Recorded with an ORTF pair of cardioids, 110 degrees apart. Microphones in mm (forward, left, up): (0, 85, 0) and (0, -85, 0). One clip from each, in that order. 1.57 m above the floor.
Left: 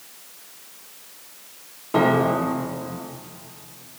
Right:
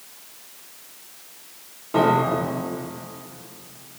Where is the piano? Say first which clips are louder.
Even; 15° left, 1.3 m.